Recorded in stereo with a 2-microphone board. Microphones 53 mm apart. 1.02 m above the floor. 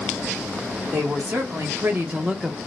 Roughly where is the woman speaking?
Right.